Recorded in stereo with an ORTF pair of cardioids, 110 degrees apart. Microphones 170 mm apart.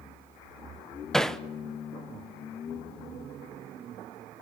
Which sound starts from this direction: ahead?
Hammering, at 1.1 s.